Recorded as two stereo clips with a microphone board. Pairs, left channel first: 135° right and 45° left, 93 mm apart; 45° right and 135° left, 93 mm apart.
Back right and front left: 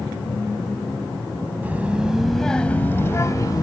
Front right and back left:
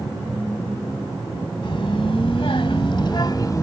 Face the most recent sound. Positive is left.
turn(degrees=-95)